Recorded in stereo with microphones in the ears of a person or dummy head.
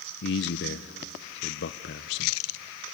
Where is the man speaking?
50° left (ahead or behind), 0.7 m.